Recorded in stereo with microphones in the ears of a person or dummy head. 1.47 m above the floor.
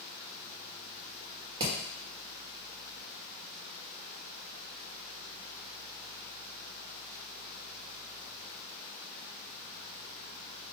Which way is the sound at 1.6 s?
25° right (ahead or behind).